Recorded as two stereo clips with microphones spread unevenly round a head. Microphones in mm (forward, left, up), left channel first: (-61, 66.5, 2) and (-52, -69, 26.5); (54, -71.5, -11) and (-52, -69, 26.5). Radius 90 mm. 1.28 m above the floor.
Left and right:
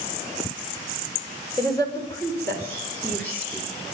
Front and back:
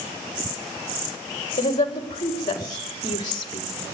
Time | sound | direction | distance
1.6 | a woman speaking | 25° left | 6 m